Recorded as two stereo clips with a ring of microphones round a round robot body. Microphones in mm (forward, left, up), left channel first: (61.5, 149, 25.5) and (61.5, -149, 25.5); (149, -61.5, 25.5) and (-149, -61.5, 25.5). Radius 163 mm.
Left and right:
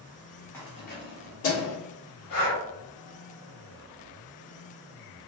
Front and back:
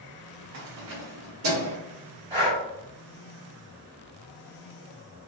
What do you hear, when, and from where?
0.5 s keys jangling: 170° left, 0.6 m; by 1.8 s 130° left, 1.5 m
2.3 s breathing: 115° left, 1.5 m